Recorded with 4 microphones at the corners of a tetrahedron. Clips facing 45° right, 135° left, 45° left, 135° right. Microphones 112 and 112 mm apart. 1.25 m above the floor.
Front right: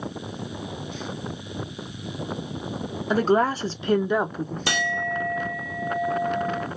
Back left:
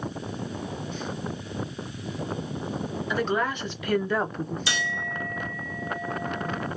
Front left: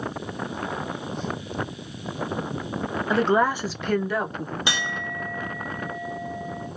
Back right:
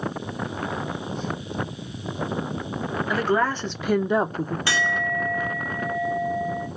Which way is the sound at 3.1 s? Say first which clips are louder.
Front right 7 dB, front left 2 dB; 10° right.